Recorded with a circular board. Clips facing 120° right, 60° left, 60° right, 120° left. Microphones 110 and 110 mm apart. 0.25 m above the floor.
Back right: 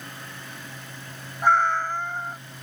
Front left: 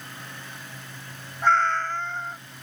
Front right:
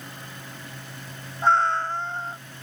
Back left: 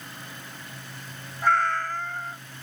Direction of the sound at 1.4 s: 60° right.